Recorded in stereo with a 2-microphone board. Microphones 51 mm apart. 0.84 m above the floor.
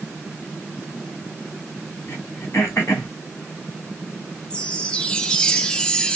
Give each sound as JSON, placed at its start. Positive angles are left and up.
{"t": 2.1, "sound": "throat clearing", "side_deg": 55, "distance_m": 1.5}
{"t": 4.5, "sound": "a chime", "side_deg": 15, "distance_m": 0.5}